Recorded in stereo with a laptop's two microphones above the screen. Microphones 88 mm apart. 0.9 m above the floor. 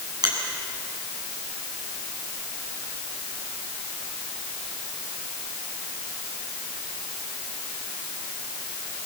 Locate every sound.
0.2 s a finger snap: 50° right (ahead or behind), 7.5 m